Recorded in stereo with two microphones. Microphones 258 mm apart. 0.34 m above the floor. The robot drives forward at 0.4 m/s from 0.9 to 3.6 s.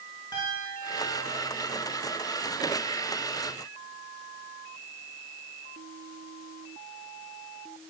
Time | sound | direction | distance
0.3 | a piano | 15° left (ahead or behind) | 7 m